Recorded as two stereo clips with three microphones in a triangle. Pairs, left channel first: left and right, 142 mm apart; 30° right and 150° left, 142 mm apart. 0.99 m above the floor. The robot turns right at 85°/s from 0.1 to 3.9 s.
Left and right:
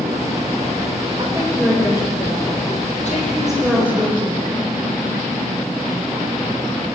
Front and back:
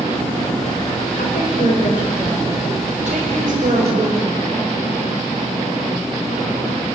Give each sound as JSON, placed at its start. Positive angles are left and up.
{"t": 1.2, "sound": "a woman speaking", "azimuth_deg": -40, "distance_m": 5.0}